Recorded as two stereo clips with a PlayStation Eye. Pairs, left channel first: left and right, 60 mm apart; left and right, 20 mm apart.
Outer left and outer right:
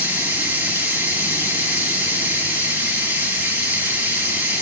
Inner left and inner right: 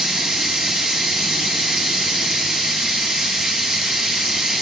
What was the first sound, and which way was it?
Running water, 35° right (ahead or behind).